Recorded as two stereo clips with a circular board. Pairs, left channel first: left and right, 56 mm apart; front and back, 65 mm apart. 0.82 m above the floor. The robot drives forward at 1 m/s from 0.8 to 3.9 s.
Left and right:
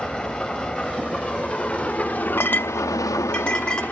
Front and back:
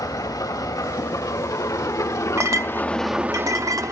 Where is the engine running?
15° left, 2.5 m; by 3.9 s 150° left, 1.0 m.